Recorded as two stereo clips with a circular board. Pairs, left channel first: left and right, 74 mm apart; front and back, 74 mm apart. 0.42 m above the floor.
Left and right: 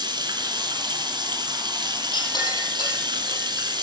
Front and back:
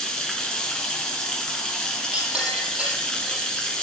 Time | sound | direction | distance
0.0 | running water | 80° right | 4 m
2.1 | a clink | 105° left | 7.5 m